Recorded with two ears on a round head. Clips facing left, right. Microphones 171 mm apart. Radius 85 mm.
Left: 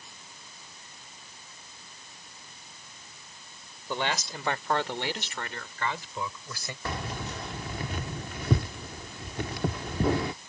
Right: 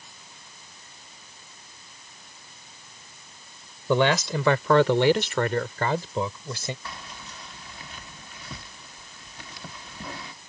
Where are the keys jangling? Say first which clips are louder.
Left 7 dB; 45° left (ahead or behind).